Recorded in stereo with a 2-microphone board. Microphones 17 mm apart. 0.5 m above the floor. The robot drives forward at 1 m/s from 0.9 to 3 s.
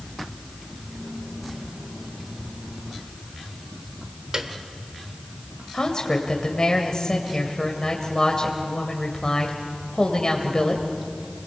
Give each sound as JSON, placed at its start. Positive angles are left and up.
{"t": 4.3, "sound": "a piano", "side_deg": -50, "distance_m": 1.5}
{"t": 5.7, "sound": "a woman speaking", "side_deg": 45, "distance_m": 1.9}